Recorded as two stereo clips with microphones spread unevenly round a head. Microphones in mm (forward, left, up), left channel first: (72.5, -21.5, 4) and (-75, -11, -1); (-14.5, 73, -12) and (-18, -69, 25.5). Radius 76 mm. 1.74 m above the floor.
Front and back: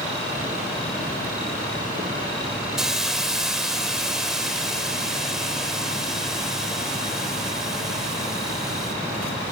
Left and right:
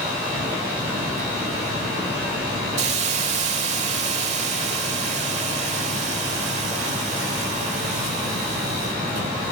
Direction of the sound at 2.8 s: 95° right.